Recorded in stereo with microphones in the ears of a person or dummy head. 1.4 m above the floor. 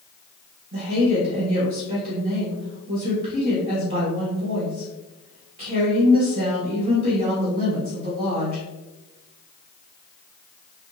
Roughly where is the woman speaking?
Right.